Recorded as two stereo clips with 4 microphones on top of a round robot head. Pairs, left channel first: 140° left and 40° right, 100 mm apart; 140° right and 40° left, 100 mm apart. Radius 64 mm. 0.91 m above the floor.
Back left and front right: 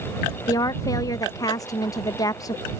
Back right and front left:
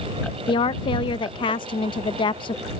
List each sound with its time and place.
0.5 s a woman speaking: 170° right